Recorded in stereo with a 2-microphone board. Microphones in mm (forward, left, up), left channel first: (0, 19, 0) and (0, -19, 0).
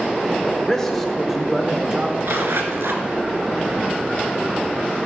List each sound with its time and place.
0.4 s a man speaking: 15° left (ahead or behind), 2 m; by 2.1 s 30° right (ahead or behind), 1.4 m
2.2 s a zipper: 75° right (ahead or behind), 1.8 m